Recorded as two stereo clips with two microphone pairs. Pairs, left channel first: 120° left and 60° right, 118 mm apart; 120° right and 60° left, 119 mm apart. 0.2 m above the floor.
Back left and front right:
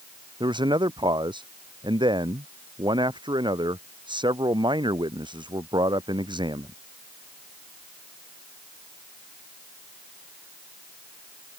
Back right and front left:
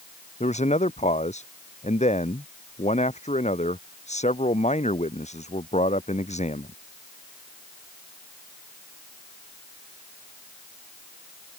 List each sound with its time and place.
0.4 s a man speaking: 110° right